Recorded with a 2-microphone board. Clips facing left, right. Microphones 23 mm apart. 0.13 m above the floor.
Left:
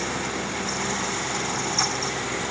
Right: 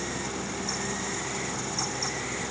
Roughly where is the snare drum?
No snare drum in this recording.